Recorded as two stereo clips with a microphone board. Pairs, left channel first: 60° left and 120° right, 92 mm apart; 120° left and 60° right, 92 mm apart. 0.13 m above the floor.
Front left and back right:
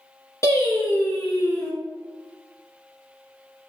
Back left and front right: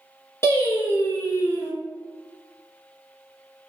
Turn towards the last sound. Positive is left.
turn(degrees=85)